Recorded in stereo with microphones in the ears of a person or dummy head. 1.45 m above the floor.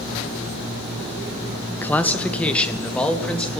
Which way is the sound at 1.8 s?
10° left (ahead or behind).